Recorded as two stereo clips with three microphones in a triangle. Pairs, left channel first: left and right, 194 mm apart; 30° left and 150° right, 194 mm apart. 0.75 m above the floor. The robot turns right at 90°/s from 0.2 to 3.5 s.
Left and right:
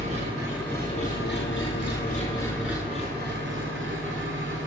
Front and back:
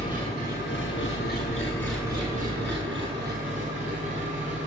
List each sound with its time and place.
0.0 s an engine running: 35° right, 7 m; by 4.7 s 100° right, 7 m